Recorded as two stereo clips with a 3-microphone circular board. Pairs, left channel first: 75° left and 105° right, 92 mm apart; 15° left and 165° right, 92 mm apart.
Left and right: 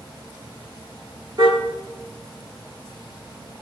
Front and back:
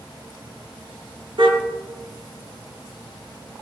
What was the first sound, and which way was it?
A car horn, 145° right.